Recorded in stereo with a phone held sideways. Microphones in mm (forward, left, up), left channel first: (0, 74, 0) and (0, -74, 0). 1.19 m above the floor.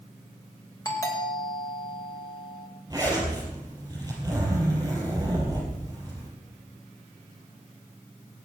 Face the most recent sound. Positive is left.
turn(degrees=-25)  # may be behind; listen again after turning